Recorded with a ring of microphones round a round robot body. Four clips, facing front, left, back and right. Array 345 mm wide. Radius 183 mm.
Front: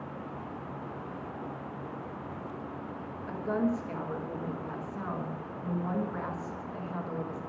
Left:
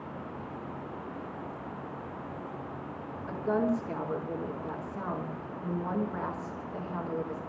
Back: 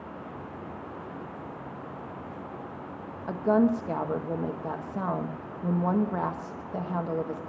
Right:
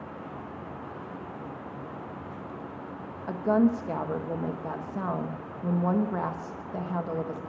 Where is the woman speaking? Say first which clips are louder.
Right 5 dB, back 7 dB; 150° right, 1.5 m.